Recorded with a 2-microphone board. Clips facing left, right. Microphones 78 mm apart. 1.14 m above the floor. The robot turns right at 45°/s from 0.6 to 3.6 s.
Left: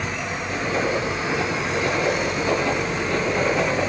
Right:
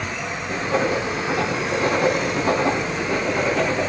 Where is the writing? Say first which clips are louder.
Right 2 dB; 50° right (ahead or behind), 3 m; by 3.9 s 5° left (ahead or behind), 3 m.